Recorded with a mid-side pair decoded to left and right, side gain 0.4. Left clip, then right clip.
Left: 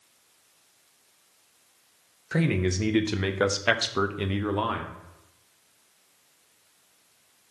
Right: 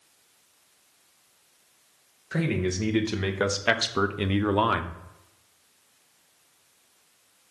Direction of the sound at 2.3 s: 30° left.